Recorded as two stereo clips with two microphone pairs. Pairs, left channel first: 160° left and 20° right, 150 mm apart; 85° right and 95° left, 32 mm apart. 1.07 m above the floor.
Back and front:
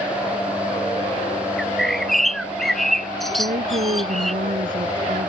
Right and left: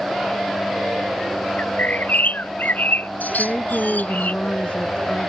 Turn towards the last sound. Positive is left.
turn(degrees=-30)